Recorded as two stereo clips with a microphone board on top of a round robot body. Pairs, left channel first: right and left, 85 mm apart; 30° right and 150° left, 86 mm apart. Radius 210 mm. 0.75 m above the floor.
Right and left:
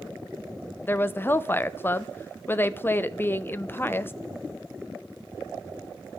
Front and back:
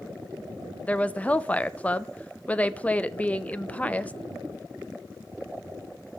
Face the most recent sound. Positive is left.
turn(degrees=-80)